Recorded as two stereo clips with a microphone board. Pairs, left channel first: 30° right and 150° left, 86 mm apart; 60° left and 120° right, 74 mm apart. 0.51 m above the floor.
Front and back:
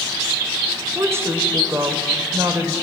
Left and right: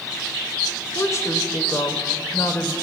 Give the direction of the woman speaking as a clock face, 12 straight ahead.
9 o'clock.